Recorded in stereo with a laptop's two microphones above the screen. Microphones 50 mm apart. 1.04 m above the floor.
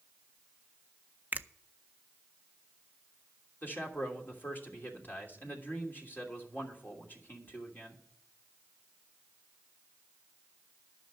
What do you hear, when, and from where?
1.3 s a finger snap: 35° right (ahead or behind), 0.5 m
3.6 s a man speaking: 40° left (ahead or behind), 3 m